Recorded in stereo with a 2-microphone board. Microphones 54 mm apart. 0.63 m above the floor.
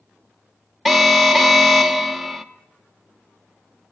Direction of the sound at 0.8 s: Centre (ahead or behind).